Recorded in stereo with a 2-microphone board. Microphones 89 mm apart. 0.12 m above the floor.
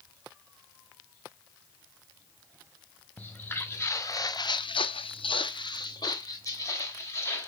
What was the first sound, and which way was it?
Footsteps, 15° left (ahead or behind).